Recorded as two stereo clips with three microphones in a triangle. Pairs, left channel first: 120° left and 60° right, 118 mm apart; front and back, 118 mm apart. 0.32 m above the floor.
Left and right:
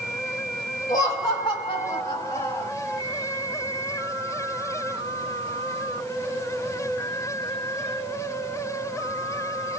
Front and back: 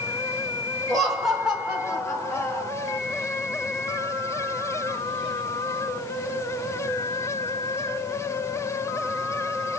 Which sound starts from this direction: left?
Laughter, at 0.9 s.